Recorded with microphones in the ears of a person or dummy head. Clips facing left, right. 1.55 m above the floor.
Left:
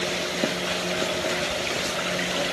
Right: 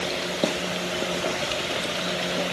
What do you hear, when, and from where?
Only background noise.